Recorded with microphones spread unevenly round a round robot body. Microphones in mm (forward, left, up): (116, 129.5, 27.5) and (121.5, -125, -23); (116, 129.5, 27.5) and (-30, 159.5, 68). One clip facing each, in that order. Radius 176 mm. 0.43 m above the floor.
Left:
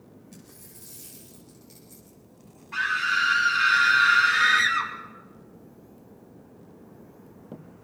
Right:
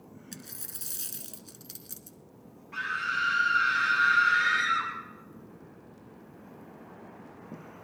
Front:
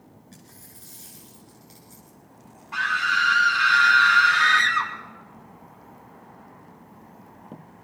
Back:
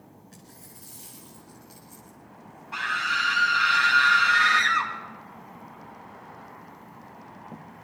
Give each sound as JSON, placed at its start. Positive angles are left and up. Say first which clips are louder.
{"t": 0.3, "sound": "a dropped coin", "louder": "right 1 dB, even", "azimuth_deg": -90, "distance_m": 1.1}
{"t": 2.7, "sound": "a scream", "louder": "left 6 dB, front 4 dB", "azimuth_deg": 80, "distance_m": 3.0}